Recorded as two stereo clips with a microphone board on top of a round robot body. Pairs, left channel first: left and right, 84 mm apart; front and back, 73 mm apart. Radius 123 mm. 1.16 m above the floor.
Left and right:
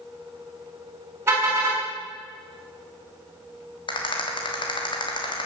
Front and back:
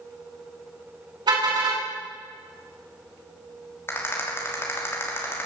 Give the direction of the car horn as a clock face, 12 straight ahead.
5 o'clock.